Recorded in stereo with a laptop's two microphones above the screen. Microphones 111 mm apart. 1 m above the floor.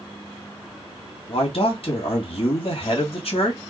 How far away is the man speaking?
About 2 m.